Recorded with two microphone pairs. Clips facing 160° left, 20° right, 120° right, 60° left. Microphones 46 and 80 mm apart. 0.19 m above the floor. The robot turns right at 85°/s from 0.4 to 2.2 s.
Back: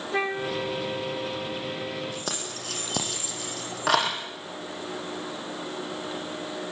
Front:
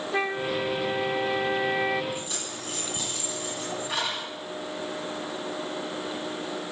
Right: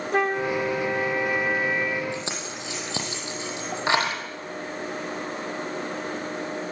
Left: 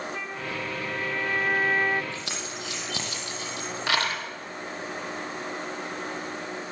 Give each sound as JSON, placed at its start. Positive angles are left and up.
{"t": 0.1, "sound": "a flute", "azimuth_deg": -115, "distance_m": 0.6}
{"t": 2.1, "sound": "keys jangling", "azimuth_deg": 170, "distance_m": 4.5}